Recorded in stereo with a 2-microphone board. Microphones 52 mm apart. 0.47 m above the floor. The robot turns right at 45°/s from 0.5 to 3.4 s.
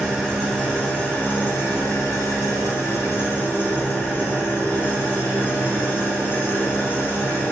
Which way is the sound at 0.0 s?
Straight ahead.